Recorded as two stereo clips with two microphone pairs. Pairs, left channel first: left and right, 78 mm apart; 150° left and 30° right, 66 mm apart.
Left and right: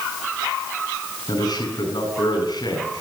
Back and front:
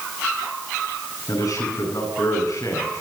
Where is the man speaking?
120° left, 7.5 m.